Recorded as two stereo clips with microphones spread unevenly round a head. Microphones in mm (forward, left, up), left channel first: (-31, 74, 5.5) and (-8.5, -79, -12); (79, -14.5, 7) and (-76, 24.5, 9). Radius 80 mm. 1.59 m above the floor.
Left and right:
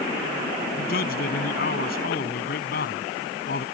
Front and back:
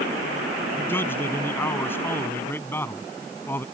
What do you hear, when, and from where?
0.8 s a man speaking: 65° left